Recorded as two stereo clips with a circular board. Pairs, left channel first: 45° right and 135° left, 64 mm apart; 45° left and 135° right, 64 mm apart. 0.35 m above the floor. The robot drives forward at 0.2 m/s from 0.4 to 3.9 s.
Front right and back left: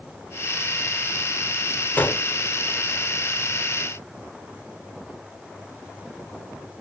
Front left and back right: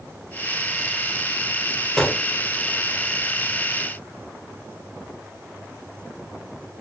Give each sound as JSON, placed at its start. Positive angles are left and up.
{"t": 2.0, "sound": "a gunshot", "azimuth_deg": -30, "distance_m": 1.0}